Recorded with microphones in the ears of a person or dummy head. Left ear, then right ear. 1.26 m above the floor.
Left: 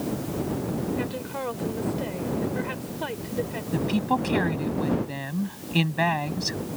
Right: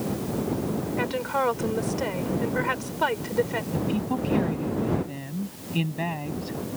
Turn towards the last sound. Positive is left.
turn(degrees=60)  # may be behind; listen again after turning